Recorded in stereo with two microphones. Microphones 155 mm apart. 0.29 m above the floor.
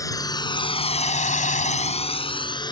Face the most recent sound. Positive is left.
turn(degrees=25)  # may be behind; listen again after turning